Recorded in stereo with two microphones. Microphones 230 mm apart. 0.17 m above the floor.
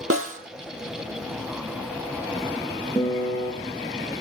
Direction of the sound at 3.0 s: 10° left (ahead or behind).